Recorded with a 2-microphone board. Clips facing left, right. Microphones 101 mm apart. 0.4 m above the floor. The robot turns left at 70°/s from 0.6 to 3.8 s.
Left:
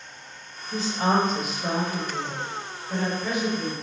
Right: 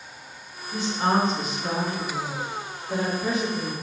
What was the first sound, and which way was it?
A woman speaking, 145° left.